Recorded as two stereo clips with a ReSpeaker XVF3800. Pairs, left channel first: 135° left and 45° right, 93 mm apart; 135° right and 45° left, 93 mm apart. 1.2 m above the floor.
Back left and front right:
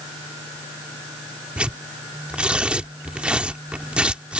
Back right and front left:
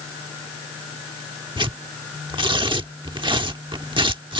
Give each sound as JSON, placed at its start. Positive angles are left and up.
{"t": 1.6, "sound": "tearing paper", "azimuth_deg": 30}